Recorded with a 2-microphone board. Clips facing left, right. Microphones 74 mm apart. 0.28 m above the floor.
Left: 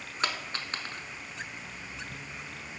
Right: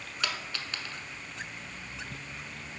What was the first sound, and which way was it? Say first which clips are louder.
A dropped coin: left 3 dB; 35° left (ahead or behind).